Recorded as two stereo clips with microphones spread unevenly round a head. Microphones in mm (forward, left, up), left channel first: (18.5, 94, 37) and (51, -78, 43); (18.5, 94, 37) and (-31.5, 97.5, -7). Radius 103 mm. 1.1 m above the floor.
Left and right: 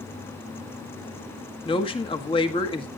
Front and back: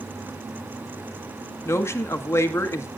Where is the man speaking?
40° left, 1.7 m.